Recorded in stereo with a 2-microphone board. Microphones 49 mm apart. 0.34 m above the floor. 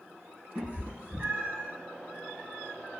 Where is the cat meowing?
35° right (ahead or behind), 1.7 m.